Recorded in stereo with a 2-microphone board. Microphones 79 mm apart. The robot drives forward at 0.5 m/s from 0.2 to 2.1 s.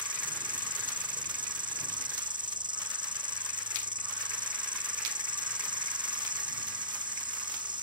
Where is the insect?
85° right; by 7.8 s 80° right.